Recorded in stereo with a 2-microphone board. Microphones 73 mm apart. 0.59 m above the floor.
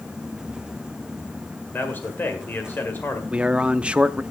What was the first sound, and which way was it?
A man speaking, 25° left (ahead or behind).